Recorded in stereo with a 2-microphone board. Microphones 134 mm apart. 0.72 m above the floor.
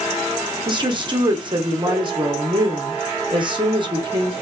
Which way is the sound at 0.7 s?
35° right (ahead or behind).